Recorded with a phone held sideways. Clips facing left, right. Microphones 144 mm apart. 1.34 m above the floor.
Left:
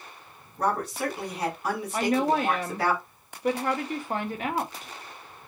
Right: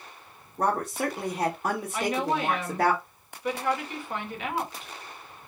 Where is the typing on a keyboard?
I don't hear typing on a keyboard.